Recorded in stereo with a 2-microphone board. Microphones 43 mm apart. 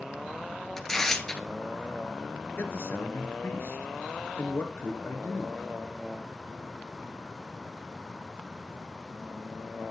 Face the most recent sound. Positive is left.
turn(degrees=60)  # may be behind; listen again after turning